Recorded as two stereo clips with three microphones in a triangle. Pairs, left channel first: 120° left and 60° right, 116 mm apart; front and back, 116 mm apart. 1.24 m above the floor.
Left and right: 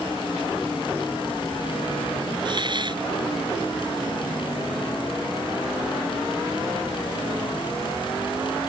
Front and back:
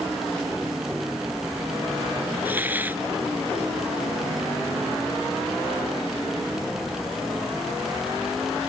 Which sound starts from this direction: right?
A hiss, at 2.5 s.